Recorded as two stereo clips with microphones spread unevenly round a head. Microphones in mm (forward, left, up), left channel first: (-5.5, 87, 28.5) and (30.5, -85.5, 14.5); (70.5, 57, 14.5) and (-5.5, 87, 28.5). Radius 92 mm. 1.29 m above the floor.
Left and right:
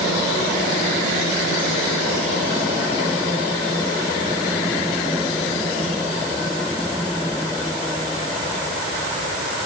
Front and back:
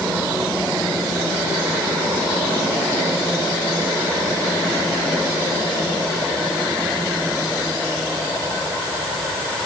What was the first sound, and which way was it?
Only background noise.